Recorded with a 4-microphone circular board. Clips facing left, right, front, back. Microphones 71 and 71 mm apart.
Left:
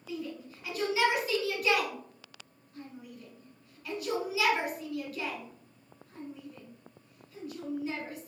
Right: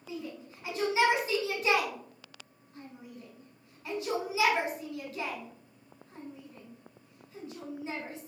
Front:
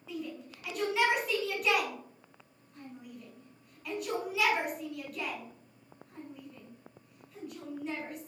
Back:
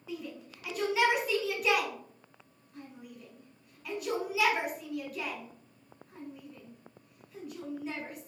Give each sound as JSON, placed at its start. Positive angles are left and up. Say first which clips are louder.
{"t": 0.1, "sound": "a shout", "louder": "left 2 dB, front 1 dB", "azimuth_deg": -95, "distance_m": 1.2}